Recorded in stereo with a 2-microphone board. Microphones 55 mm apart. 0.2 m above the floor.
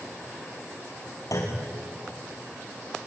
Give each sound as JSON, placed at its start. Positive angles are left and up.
{"t": 1.3, "sound": "a clunk", "side_deg": 75, "distance_m": 4.5}